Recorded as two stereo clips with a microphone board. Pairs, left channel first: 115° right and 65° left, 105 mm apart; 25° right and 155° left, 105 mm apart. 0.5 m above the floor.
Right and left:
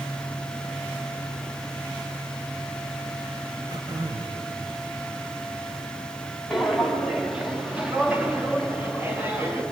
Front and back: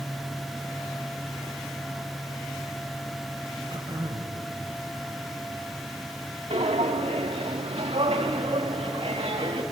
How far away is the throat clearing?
About 2.5 m.